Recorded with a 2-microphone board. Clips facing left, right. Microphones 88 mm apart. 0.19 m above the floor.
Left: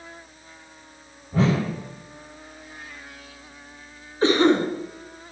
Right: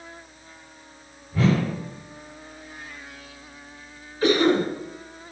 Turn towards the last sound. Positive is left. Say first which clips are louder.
# left 1 dB
turn(degrees=30)  # may be behind; listen again after turning